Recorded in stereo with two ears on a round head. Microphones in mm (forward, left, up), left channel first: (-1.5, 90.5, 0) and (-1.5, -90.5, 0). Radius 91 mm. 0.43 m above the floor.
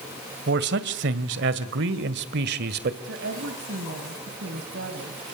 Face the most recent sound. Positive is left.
turn(degrees=-60)  # may be behind; listen again after turning